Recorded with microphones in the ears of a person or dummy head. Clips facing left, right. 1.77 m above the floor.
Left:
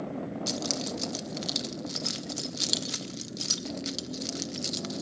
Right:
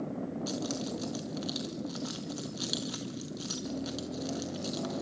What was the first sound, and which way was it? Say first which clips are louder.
Keys jangling: left 1 dB; 40° left (ahead or behind).